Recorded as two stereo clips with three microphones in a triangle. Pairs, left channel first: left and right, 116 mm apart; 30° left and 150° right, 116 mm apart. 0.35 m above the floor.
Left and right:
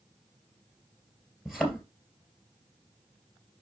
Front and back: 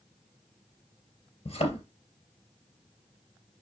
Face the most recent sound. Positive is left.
turn(degrees=-5)